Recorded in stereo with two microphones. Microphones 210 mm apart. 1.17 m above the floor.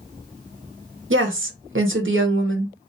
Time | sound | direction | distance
1.1 | a woman speaking | 70° right (ahead or behind) | 0.7 m